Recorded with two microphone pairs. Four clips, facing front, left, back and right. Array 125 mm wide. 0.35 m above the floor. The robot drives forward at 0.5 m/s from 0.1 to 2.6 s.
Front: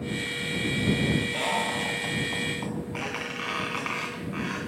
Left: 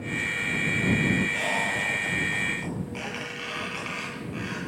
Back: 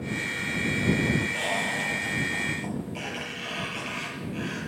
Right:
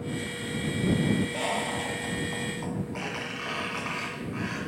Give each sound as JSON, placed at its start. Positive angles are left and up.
{"t": 1.3, "sound": "a squeak", "azimuth_deg": -10, "distance_m": 3.0}